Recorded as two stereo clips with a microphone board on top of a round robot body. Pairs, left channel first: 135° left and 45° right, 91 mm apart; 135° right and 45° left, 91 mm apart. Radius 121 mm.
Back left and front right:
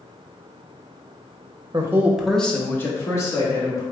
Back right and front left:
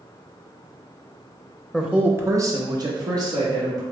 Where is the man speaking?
40° right, 0.8 m; by 3.8 s 85° left, 1.9 m.